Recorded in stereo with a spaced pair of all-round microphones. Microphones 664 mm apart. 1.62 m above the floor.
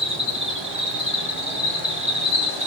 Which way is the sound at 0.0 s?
20° right (ahead or behind).